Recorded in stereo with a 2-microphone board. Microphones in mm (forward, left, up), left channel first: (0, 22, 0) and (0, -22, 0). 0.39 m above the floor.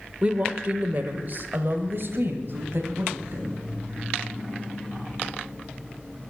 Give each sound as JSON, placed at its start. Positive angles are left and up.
{"t": 0.2, "sound": "a woman speaking", "side_deg": -25, "distance_m": 0.9}